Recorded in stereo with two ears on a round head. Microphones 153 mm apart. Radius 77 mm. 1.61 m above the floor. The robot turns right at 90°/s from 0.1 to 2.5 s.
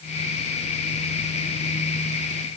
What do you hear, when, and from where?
Only background noise.